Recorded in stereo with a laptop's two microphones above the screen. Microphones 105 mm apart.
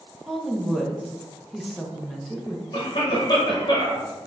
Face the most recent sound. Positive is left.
turn(degrees=40)  # may be behind; listen again after turning